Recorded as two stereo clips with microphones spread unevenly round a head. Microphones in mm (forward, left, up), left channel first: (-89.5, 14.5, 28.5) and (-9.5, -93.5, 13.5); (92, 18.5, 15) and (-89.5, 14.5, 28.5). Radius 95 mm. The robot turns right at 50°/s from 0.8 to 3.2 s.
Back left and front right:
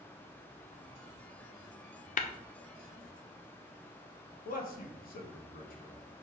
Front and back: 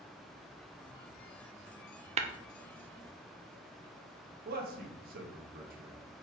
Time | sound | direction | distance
2.2 | tapping | 130° left | 0.8 m
4.5 | a man speaking | 140° left | 1.6 m